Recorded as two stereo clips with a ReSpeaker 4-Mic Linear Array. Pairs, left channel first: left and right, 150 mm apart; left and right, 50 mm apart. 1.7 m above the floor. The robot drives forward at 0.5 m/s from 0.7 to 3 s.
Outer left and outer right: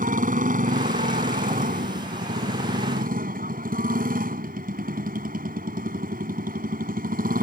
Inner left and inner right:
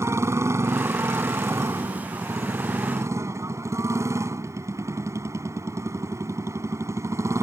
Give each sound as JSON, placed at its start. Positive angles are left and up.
{"t": 0.0, "sound": "a motorcycle", "side_deg": -65}